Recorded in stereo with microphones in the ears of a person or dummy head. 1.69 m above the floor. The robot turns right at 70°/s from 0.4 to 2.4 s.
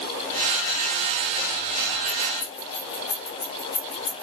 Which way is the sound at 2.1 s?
55° left (ahead or behind).